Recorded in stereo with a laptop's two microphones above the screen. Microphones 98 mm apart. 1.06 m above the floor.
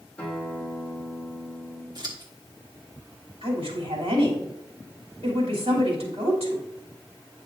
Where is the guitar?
15° left (ahead or behind), 1.3 m.